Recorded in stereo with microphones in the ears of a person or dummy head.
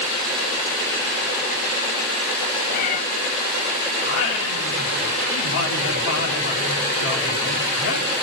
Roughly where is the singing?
Left.